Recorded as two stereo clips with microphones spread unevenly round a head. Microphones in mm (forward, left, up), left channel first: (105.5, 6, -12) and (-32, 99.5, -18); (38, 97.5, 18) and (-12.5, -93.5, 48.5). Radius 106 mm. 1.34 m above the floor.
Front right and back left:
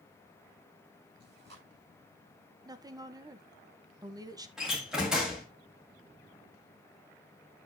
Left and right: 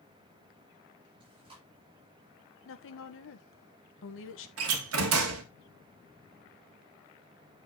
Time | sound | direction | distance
1.2 | chewing | 170° right | 5.5 m
2.6 | a woman speaking | 80° left | 1.5 m
4.6 | a door slam | 125° right | 1.9 m